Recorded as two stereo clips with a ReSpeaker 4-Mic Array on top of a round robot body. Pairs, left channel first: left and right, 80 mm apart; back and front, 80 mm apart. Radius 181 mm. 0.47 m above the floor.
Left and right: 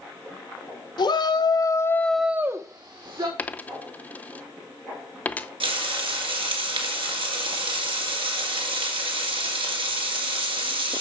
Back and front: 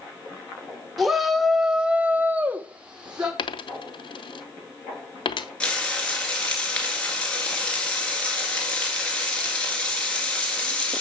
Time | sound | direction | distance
1.0 | a shout | 90° left | 1.9 m
3.4 | a dropped coin | 160° left | 0.6 m
5.6 | frying | 100° right | 2 m